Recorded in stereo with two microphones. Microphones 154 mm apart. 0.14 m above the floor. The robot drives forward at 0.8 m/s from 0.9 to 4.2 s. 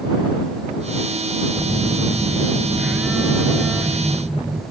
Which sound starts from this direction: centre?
A phone buzzing, at 1.6 s.